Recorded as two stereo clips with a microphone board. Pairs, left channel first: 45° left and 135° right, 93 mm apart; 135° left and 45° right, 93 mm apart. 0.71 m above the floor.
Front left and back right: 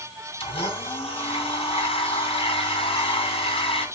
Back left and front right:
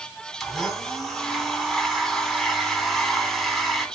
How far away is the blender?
About 2.5 m.